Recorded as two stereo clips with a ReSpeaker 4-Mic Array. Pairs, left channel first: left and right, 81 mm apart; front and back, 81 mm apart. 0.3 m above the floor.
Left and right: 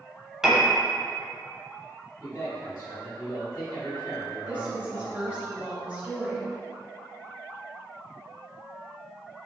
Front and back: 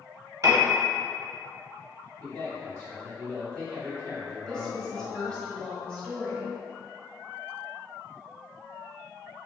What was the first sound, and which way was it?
A piano, 170° right.